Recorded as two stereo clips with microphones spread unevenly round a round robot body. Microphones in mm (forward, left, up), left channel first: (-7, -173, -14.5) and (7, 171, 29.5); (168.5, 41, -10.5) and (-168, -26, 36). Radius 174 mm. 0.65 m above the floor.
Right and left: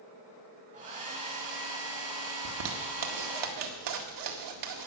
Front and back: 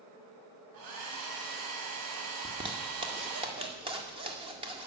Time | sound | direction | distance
0.7 | a hair dryer | 160° left | 3.5 m
2.5 | a zipper | 115° left | 1.9 m